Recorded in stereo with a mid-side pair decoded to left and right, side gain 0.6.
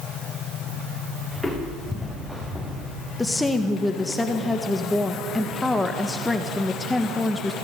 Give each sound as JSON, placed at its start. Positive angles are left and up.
{"t": 1.3, "sound": "footsteps", "azimuth_deg": 10, "distance_m": 7.0}
{"t": 3.2, "sound": "a woman speaking", "azimuth_deg": 15, "distance_m": 1.5}